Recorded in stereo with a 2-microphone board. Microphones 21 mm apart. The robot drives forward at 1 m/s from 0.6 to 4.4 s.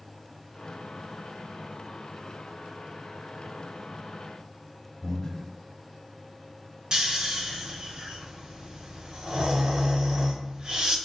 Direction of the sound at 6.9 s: 40° right (ahead or behind).